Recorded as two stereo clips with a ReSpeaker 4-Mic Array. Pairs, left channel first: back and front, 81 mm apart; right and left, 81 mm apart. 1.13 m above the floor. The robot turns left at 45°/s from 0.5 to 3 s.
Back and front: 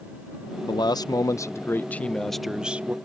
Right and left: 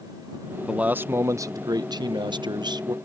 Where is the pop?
I don't hear a pop.